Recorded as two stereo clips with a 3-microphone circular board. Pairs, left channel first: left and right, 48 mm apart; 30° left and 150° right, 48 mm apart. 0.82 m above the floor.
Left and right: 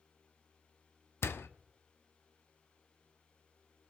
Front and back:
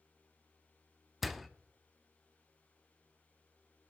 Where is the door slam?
120° left, 0.6 m.